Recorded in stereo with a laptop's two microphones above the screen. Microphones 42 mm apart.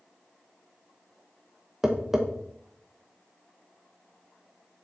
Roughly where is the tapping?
Centre.